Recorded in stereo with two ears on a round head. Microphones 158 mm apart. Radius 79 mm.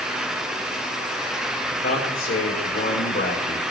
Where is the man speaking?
45° left (ahead or behind), 2.5 m.